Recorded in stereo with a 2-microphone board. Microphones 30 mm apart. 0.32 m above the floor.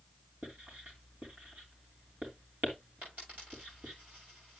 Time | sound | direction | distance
0.4 | writing | 70° right (ahead or behind) | 3 m
3.0 | a dropped coin | 75° right (ahead or behind) | 8 m